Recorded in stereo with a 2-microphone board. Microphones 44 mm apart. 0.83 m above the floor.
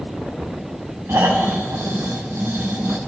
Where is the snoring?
75° right (ahead or behind), 5 m.